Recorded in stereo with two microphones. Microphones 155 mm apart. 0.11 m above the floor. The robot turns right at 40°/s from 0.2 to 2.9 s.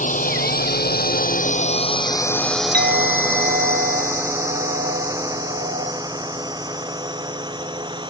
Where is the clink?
70° right (ahead or behind); by 5.9 s 80° right.